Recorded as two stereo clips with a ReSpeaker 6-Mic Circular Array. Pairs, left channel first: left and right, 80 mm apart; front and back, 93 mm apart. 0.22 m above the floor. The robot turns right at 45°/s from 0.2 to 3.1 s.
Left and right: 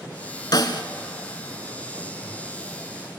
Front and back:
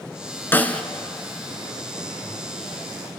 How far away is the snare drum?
About 1.3 m.